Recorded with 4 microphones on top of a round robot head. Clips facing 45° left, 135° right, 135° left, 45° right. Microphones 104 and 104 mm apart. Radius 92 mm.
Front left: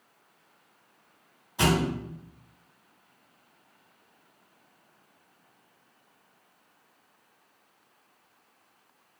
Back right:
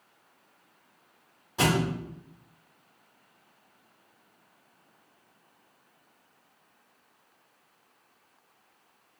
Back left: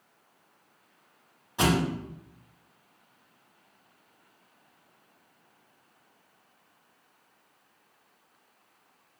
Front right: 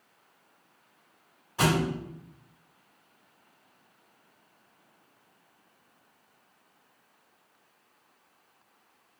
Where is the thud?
160° right, 1.8 m.